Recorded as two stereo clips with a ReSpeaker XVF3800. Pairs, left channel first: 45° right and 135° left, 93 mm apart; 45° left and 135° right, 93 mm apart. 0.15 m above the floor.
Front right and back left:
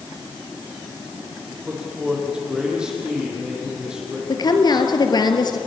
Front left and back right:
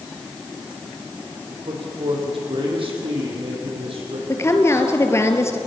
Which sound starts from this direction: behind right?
A man speaking, at 1.5 s.